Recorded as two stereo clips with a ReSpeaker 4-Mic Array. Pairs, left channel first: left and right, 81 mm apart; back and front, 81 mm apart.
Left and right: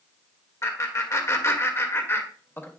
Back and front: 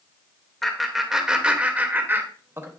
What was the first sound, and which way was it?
Laughter, 95° left.